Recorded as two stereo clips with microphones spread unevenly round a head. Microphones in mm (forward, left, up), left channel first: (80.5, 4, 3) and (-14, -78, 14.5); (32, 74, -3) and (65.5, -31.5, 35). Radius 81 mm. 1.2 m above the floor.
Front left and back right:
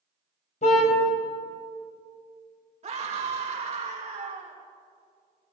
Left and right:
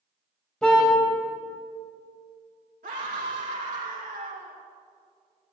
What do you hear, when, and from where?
0.6 s a car horn: 20° left, 2.5 m
2.8 s a scream: 105° right, 2 m